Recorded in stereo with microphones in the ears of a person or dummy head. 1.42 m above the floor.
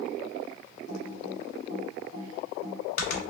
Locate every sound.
0.9 s typing on a keyboard: 55° left (ahead or behind), 1.5 m